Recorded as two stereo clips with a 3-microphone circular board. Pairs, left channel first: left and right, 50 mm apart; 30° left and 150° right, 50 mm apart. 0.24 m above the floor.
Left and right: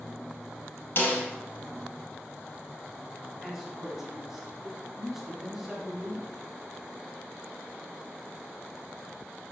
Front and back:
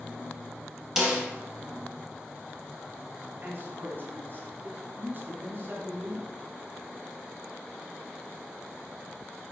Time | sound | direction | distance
1.0 | a snare drum | 130° left | 3 m
3.4 | a man speaking | 175° right | 2 m